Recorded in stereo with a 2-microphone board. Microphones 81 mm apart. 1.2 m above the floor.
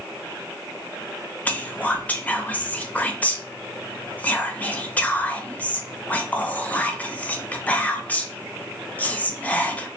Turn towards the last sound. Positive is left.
turn(degrees=20)  # may be behind; listen again after turning